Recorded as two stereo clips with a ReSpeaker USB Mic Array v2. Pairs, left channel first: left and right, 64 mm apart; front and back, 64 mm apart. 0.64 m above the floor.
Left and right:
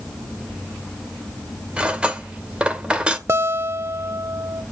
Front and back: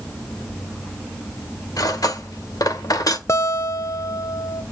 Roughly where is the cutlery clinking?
Ahead.